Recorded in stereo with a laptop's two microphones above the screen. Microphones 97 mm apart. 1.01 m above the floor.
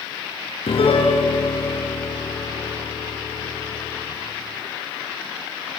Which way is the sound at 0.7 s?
85° left.